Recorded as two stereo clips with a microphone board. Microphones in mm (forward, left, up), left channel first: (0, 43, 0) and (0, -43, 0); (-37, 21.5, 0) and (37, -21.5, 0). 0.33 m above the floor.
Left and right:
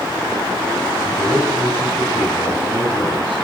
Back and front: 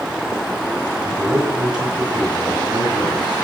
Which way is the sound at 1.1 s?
45° right.